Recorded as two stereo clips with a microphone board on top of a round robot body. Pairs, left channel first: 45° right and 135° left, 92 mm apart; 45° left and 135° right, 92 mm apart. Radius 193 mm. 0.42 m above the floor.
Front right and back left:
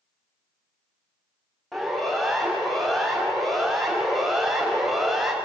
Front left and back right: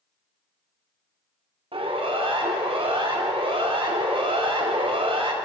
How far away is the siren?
About 6.5 m.